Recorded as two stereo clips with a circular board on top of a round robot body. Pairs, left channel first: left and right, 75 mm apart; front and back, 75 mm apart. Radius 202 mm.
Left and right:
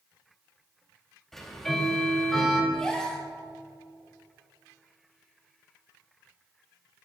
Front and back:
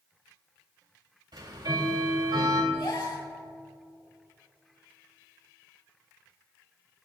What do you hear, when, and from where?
1.3 s ticking: 175° left, 3.5 m
2.7 s a gasp: 10° left, 4 m